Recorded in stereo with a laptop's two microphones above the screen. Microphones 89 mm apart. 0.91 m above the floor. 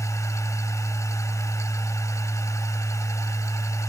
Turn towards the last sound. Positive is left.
turn(degrees=35)  # may be behind; listen again after turning